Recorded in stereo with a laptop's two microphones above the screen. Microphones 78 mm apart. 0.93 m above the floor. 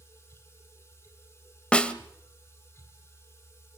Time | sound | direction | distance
0.0 | a machine running | 35° left (ahead or behind) | 3 m
1.7 | a snare drum | 15° left (ahead or behind) | 1.4 m